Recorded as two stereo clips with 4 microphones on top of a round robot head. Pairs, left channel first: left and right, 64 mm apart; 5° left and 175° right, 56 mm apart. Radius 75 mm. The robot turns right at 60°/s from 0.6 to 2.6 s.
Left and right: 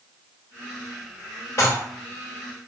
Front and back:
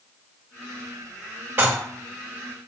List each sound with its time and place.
1.6 s dishes clattering: 140° left, 1.8 m; by 1.8 s 150° left, 1.8 m